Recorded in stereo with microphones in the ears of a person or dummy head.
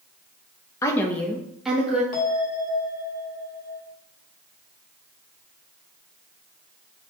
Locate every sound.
0.8 s a woman speaking: 15° left (ahead or behind), 0.6 m; by 2.0 s 10° right (ahead or behind), 1.2 m
2.1 s a bell: 50° left (ahead or behind), 1.6 m